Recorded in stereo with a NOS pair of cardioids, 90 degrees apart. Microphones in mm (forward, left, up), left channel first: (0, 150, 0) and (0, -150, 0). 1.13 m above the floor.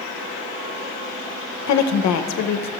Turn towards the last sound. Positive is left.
turn(degrees=65)